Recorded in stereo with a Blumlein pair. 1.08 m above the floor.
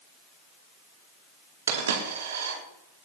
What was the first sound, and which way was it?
A dropped coin, 65° right.